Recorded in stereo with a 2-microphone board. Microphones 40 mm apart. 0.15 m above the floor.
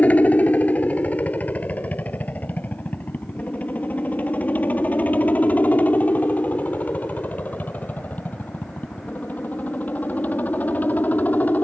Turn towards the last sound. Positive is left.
turn(degrees=45)  # may be behind; listen again after turning